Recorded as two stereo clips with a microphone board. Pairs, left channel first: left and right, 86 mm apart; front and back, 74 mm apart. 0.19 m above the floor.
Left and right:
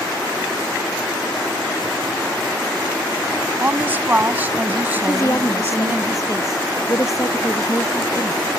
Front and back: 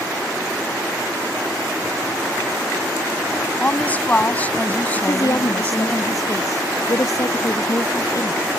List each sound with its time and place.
3.6 s a woman speaking: 45° right
5.0 s a woman speaking: 40° left